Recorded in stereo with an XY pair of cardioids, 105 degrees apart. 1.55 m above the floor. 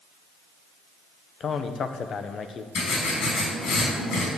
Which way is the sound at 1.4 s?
50° left.